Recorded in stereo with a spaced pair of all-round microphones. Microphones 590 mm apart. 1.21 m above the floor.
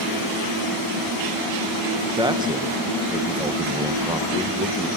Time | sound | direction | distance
2.2 | a man speaking | 5° right (ahead or behind) | 1.1 m